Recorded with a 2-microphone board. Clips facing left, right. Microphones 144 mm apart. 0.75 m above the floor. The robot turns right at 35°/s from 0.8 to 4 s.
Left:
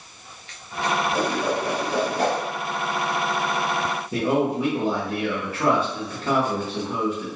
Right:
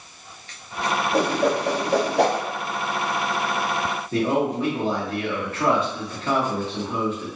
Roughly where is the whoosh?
Right.